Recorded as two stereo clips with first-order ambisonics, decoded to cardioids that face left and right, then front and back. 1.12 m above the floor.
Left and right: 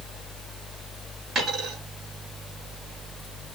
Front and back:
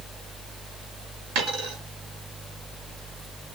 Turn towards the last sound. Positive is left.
turn(degrees=-170)